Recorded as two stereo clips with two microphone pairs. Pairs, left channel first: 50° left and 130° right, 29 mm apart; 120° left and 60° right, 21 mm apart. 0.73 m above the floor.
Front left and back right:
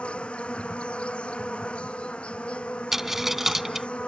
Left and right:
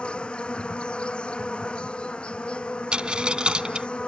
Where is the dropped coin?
60° right.